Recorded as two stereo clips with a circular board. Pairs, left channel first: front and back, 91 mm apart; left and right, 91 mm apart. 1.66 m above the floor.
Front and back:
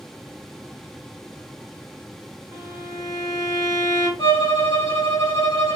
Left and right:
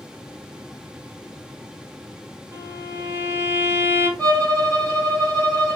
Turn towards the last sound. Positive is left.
turn(degrees=20)